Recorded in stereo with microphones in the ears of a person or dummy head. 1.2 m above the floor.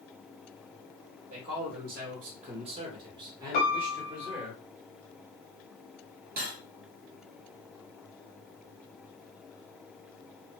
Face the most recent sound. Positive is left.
turn(degrees=-40)  # may be behind; listen again after turning